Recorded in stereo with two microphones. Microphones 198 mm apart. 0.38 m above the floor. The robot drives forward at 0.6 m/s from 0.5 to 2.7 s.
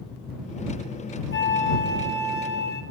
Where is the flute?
70° left (ahead or behind), 3.5 m; by 2.8 s 60° left (ahead or behind), 3.5 m.